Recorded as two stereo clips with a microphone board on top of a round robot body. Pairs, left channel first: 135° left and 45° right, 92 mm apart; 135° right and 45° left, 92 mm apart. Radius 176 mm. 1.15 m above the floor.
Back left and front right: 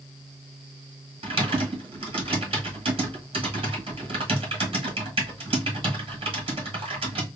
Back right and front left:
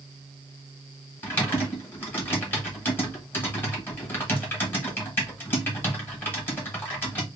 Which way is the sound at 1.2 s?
70° right.